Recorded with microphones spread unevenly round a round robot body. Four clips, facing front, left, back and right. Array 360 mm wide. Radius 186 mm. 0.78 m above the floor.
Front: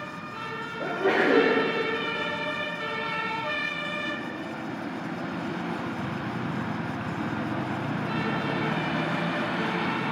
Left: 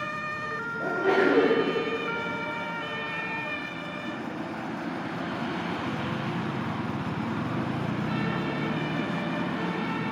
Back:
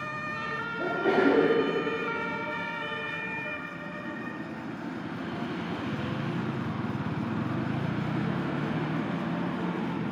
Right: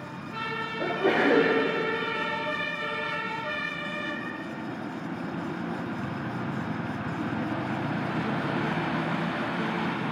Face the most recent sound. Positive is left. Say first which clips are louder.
# left 1 dB, even
turn(degrees=-155)